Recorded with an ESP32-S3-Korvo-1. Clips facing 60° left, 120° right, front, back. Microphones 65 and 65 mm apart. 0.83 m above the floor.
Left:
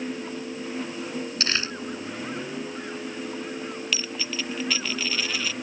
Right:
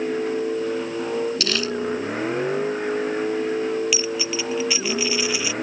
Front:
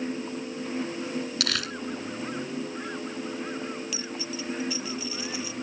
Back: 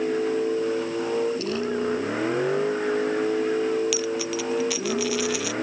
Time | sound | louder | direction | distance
0.0 | a vehicle | right 9 dB, back 9 dB | 160° right | ?
1.4 | crumpling | right 4 dB, back 6 dB | straight ahead | ?
3.9 | a dropped coin | right 6 dB, back 9 dB | 160° left | ?